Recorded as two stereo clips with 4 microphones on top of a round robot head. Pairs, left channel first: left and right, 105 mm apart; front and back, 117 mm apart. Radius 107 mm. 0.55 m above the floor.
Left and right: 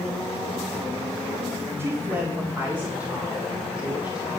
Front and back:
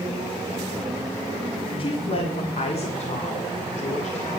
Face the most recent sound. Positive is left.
turn(degrees=-10)